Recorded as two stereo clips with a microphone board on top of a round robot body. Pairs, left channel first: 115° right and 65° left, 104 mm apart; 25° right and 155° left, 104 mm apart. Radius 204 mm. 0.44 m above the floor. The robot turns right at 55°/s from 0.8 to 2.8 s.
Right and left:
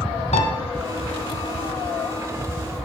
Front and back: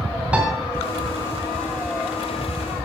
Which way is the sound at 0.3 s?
125° right.